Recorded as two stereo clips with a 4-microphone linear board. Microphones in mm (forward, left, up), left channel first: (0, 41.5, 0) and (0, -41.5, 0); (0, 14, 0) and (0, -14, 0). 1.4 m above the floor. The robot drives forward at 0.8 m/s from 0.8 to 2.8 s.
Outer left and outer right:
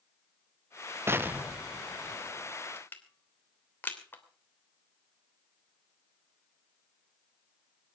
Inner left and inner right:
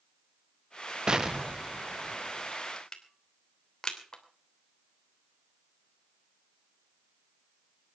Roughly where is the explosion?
Right.